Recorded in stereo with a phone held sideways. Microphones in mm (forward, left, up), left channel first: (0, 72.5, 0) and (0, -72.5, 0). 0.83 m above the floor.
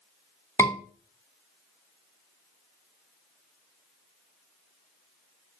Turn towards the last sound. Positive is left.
turn(degrees=15)  # may be behind; listen again after turning